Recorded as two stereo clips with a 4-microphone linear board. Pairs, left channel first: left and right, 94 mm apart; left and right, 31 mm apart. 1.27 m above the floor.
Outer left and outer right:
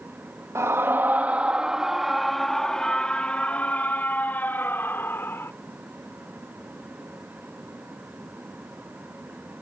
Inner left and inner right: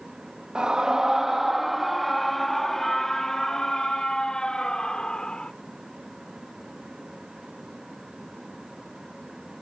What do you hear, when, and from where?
0.6 s a scream: 30° right (ahead or behind); by 5.5 s 25° left (ahead or behind)